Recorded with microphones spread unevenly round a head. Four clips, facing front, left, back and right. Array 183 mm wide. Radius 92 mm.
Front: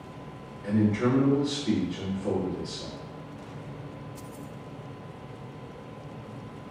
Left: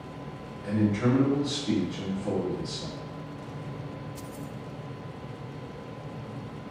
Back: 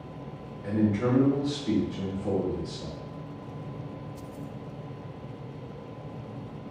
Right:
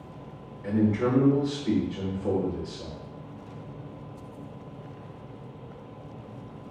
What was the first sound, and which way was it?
A man speaking, 70° right.